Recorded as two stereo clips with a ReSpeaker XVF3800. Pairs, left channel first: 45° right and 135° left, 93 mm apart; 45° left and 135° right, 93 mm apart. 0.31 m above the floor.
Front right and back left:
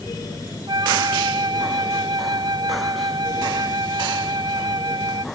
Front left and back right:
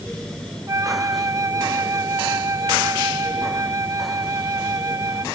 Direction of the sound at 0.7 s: 175° left.